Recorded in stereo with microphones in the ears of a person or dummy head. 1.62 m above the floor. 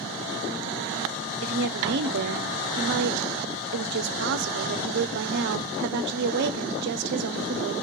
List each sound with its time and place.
1.4 s a woman speaking: 65° right (ahead or behind), 0.9 m